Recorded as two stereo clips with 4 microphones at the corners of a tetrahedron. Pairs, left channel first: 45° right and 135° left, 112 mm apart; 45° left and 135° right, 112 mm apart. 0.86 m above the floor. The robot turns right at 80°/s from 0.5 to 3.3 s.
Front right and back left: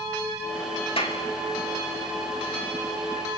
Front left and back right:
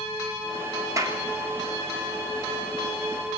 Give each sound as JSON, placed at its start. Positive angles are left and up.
{"t": 1.0, "sound": "a clap", "azimuth_deg": -75, "distance_m": 2.0}